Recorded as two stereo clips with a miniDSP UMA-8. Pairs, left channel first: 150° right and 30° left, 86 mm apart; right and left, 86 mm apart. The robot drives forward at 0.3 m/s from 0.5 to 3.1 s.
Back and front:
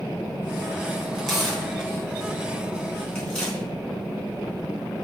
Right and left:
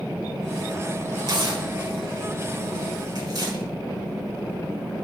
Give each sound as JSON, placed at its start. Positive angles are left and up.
{"t": 1.2, "sound": "tearing paper", "azimuth_deg": 120, "distance_m": 3.5}